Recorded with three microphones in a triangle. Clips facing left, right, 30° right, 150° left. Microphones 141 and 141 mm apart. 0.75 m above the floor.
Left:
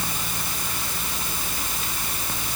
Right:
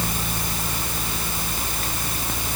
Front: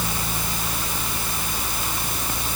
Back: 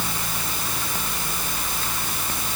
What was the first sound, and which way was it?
Only background noise.